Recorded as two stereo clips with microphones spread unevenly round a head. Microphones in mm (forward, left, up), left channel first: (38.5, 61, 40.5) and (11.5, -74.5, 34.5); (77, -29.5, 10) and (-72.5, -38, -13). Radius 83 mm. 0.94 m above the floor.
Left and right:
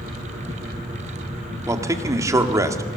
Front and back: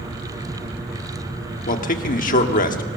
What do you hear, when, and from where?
1.7 s a man speaking: 30° right, 1.9 m